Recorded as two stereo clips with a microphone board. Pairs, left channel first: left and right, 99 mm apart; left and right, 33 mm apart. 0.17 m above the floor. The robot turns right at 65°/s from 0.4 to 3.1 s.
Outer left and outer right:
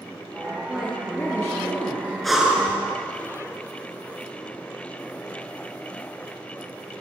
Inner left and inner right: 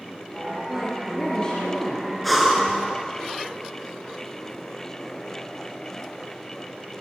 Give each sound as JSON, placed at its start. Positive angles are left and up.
{"t": 0.7, "sound": "a woman speaking", "azimuth_deg": -15, "distance_m": 2.5}
{"t": 2.2, "sound": "breathing", "azimuth_deg": 175, "distance_m": 1.6}